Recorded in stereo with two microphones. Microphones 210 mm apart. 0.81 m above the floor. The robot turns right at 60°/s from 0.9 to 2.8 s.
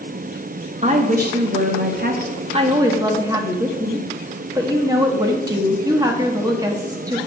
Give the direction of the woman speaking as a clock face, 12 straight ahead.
5 o'clock.